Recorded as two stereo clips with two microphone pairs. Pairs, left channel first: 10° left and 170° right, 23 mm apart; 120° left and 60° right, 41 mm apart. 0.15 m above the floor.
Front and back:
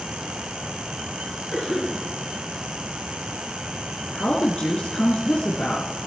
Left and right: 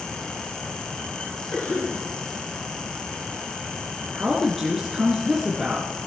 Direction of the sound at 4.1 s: 20° left.